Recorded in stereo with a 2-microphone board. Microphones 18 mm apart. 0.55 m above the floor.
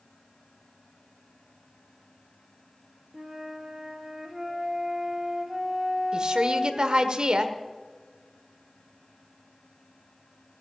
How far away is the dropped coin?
I don't hear a dropped coin.